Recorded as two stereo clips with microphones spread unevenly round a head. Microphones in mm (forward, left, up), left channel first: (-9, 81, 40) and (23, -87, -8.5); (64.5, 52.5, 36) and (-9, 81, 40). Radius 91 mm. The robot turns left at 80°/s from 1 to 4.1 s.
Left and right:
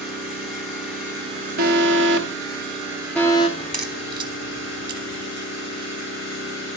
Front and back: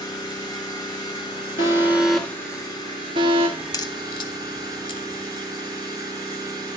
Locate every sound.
0.0 s an engine running: 10° left, 7.5 m; by 6.8 s 120° left, 7.5 m
1.6 s an alarm: 45° right, 1.3 m; by 3.5 s 160° left, 1.3 m
3.6 s a crack: 30° left, 1.1 m; by 5.2 s 10° right, 1.1 m